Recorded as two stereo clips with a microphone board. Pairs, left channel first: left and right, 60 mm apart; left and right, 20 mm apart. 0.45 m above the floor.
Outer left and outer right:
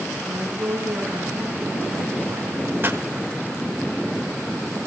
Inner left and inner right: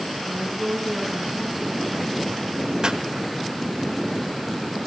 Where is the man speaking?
25° right (ahead or behind), 3.5 m.